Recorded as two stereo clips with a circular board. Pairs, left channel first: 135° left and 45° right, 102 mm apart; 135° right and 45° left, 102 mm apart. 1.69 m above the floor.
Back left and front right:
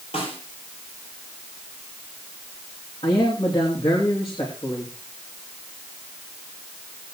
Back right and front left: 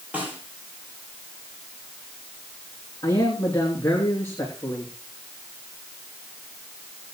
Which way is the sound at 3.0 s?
165° left.